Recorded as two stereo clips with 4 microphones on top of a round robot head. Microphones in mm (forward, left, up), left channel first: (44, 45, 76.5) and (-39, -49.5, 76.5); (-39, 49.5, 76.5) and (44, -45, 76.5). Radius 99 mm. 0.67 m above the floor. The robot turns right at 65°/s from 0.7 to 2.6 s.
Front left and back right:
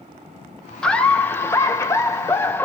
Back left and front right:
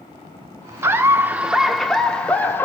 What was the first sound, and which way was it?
Laughter, 25° right.